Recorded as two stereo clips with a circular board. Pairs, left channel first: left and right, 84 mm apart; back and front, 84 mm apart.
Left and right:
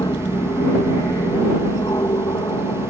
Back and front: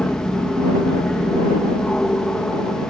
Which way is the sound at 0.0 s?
105° left.